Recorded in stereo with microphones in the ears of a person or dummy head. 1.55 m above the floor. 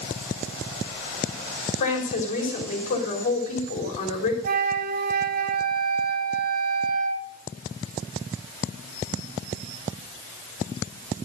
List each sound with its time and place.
1.8 s a woman speaking: 45° left (ahead or behind), 3.5 m
4.4 s a flute: 50° right (ahead or behind), 1.2 m